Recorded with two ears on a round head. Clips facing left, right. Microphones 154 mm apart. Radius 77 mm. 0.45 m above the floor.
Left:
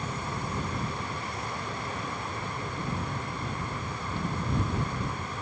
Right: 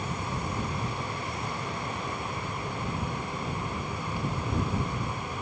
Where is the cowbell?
No cowbell in this recording.